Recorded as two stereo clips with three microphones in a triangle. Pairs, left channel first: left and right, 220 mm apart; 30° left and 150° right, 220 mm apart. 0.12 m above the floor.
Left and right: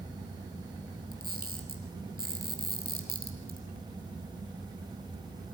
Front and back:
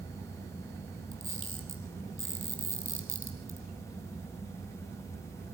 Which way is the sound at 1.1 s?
135° right.